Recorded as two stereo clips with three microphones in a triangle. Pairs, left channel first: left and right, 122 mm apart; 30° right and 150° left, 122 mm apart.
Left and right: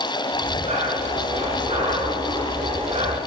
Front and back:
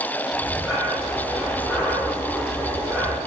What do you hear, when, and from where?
0.3 s breathing: 110° right, 6.5 m